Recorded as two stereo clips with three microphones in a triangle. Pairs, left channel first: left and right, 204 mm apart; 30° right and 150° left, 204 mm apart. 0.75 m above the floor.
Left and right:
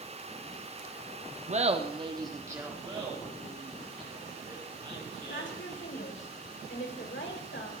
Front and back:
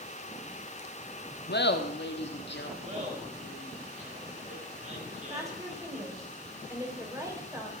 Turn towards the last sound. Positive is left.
turn(degrees=75)